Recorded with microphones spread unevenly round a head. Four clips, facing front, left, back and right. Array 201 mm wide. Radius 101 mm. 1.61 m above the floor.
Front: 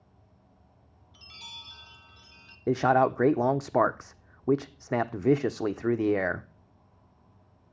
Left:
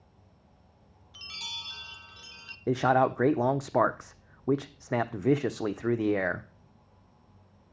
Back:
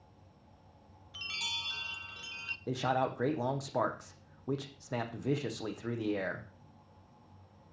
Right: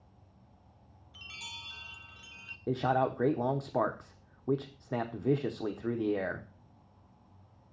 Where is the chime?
155° left, 0.8 m.